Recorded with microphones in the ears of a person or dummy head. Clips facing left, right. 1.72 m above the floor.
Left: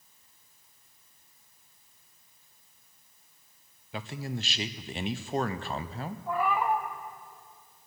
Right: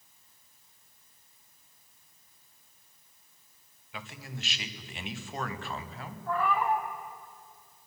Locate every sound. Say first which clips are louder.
3.9 s a man speaking: left 8 dB; 35° left (ahead or behind), 0.7 m
6.3 s a cat meowing: even; 15° left (ahead or behind), 1.4 m